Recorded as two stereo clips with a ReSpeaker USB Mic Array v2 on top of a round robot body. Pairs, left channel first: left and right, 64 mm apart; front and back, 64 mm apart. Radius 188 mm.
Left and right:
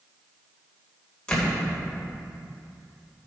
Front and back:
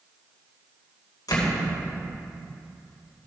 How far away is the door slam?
About 3 m.